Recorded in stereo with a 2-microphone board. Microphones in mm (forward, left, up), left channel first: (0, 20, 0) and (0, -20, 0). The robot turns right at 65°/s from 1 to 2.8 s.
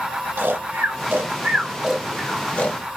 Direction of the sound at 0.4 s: 70° right (ahead or behind).